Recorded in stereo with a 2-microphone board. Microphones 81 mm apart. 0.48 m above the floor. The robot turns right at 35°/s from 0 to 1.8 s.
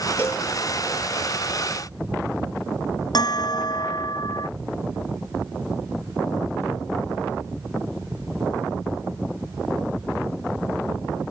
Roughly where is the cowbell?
Left.